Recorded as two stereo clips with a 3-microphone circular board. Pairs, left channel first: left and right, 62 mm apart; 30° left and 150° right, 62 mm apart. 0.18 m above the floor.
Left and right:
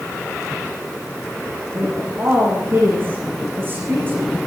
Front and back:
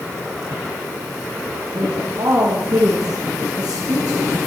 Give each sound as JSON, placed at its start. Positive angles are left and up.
{"t": 1.7, "sound": "a woman speaking", "azimuth_deg": -145, "distance_m": 9.5}